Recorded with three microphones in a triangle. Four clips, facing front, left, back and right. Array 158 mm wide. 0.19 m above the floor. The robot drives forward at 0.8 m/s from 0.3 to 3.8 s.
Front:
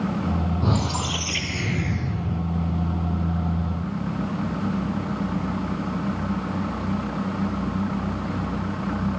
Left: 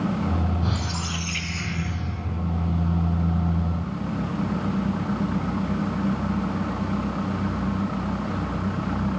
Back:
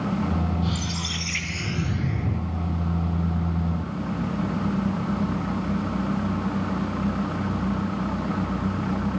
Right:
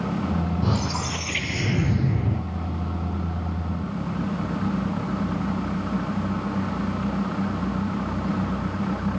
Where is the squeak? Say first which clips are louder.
Right 3 dB, front 5 dB; 30° right, 1.3 m; by 2.4 s 115° right, 0.7 m.